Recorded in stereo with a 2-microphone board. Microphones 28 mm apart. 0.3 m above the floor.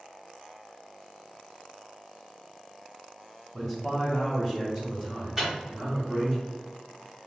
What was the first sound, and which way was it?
A man speaking, 10° right (ahead or behind).